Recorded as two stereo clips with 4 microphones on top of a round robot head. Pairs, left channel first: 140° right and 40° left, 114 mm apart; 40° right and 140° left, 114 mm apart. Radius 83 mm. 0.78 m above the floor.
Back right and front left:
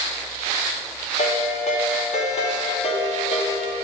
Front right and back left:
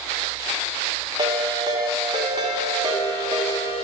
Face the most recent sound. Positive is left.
turn(degrees=-170)